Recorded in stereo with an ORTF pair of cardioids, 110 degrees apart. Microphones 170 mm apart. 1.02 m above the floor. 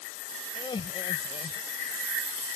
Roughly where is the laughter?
Ahead left.